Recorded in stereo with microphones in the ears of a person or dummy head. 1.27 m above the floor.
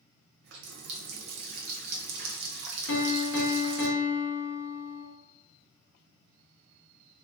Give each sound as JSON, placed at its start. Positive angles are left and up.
{"t": 0.4, "sound": "a running tap", "side_deg": -55, "distance_m": 0.5}
{"t": 2.9, "sound": "a piano", "side_deg": 60, "distance_m": 0.8}